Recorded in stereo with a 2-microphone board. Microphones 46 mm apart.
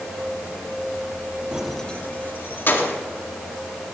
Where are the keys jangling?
20° right (ahead or behind), 0.7 m; by 3.0 s 60° left (ahead or behind), 2.5 m.